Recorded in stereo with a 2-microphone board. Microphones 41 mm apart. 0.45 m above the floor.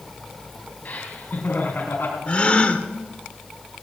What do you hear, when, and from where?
0.8 s laughter: 50° left (ahead or behind), 3 m; by 2.2 s 65° left (ahead or behind), 4 m
2.3 s a gasp: 35° left (ahead or behind), 1.4 m